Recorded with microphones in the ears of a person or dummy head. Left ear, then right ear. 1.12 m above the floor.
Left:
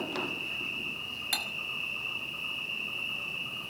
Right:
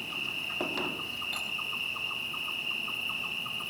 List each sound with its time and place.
0.0 s an insect: 45° right (ahead or behind), 8.5 m
1.3 s cutlery clinking: 55° left (ahead or behind), 2 m